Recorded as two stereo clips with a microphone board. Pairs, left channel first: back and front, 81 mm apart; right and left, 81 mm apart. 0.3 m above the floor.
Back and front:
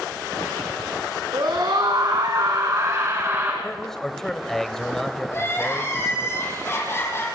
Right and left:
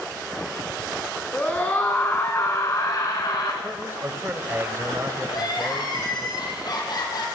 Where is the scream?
15° right, 3 m; by 3.5 s 60° right, 3 m.